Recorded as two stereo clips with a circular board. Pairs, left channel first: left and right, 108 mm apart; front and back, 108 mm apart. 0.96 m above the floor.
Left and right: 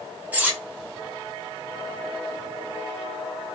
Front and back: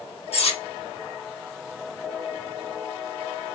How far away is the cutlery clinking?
About 0.9 m.